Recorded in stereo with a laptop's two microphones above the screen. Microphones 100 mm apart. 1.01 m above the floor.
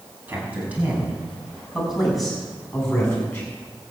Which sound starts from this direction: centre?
A man speaking, at 0.3 s.